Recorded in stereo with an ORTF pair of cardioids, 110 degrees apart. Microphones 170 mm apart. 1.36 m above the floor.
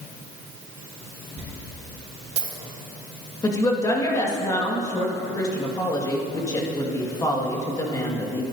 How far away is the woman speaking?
About 2.0 m.